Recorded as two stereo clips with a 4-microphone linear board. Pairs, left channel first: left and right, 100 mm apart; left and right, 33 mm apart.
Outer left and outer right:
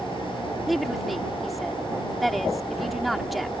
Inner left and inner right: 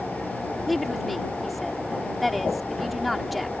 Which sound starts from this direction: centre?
A woman speaking, at 0.7 s.